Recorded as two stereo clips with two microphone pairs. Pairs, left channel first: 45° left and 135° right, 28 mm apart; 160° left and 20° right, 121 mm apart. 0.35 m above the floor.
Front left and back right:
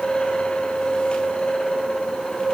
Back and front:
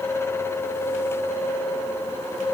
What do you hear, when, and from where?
Only background noise.